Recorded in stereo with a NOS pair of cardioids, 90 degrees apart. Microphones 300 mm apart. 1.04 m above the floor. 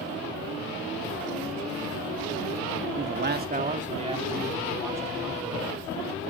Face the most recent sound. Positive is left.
turn(degrees=-5)